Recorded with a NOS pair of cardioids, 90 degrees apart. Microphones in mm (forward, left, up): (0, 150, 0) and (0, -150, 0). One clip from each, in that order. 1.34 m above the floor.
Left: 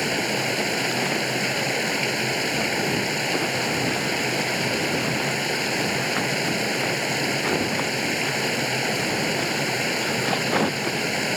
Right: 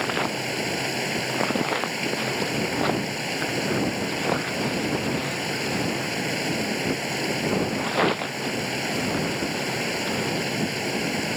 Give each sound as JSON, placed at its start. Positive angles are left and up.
{"t": 0.0, "sound": "running water", "azimuth_deg": 55}